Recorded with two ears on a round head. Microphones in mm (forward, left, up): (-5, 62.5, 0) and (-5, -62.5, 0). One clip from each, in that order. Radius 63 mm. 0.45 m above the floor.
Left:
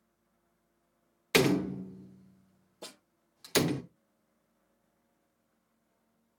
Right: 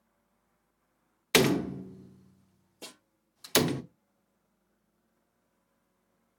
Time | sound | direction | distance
1.3 | a door slam | 20° right (ahead or behind) | 0.5 m
2.8 | a snare drum | 85° right | 6 m